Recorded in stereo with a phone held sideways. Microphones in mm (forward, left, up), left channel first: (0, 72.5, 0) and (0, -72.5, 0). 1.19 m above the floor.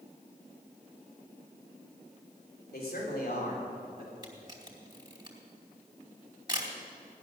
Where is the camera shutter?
30° right (ahead or behind), 2.5 m.